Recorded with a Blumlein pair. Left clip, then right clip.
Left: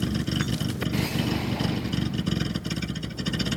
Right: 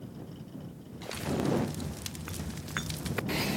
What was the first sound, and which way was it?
A vehicle, 45° left.